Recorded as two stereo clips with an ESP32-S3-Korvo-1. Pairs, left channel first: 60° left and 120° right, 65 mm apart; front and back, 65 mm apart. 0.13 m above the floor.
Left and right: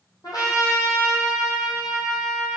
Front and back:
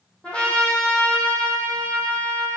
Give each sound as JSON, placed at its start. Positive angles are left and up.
{"t": 0.2, "sound": "a trumpet", "azimuth_deg": 70, "distance_m": 3.0}